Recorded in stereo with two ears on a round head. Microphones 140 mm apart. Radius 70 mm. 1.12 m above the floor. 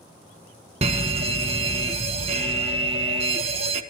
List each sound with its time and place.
0.8 s a fire alarm: 40° right (ahead or behind), 1.5 m